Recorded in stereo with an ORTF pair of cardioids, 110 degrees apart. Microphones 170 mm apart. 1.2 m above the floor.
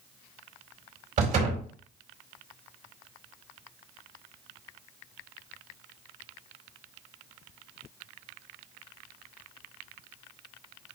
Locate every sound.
1.2 s a door slam: 50° right, 4.5 m